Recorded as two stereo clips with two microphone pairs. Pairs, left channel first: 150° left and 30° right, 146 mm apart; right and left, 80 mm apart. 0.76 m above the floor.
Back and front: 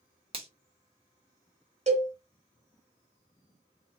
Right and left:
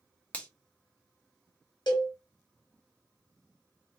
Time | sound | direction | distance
0.3 | a finger snap | 35° right | 0.7 m
1.9 | a cowbell | 65° right | 1.3 m